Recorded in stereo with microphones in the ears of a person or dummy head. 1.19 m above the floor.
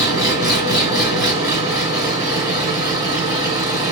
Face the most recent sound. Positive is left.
turn(degrees=-20)  # may be behind; listen again after turning